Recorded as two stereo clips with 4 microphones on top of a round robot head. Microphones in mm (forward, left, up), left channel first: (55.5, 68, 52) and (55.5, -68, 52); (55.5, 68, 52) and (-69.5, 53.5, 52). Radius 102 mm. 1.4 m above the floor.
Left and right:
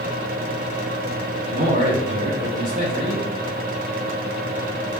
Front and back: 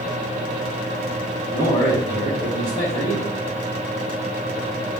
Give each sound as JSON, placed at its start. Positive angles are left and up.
{"t": 1.5, "sound": "a man speaking", "azimuth_deg": -55, "distance_m": 3.0}